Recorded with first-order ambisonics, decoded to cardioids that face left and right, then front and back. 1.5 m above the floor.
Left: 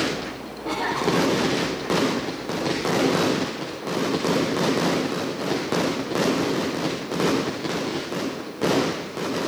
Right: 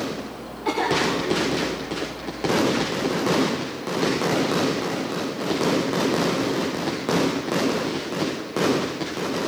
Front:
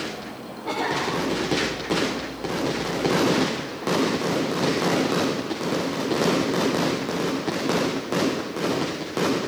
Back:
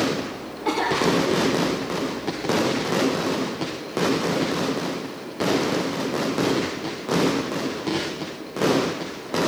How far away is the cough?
About 6 m.